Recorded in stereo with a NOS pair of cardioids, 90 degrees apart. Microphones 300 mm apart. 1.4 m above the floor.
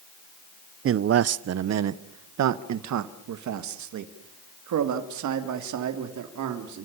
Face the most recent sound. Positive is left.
turn(degrees=-75)